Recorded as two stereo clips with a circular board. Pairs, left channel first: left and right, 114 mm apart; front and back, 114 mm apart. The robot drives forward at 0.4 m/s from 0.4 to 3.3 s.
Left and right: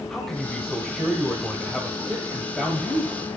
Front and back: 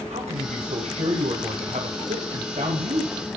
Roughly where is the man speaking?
Behind.